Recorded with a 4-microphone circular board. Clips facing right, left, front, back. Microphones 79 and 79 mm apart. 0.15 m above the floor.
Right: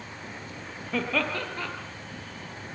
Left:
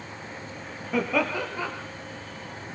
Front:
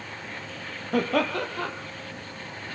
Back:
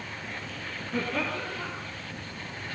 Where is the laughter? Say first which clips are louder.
Left 3 dB, front 7 dB; 10° left, 4 m.